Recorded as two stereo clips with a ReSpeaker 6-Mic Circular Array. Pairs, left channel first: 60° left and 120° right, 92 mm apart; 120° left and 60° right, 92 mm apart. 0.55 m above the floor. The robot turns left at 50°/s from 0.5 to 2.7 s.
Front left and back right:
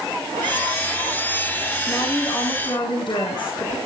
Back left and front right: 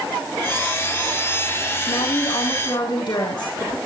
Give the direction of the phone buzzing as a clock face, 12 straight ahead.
I don't hear a phone buzzing.